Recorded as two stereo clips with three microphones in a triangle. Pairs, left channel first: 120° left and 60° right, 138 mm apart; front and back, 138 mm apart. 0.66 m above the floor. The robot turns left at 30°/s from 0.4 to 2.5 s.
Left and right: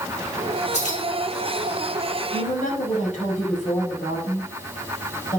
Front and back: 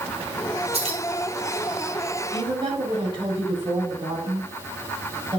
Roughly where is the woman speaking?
Behind left.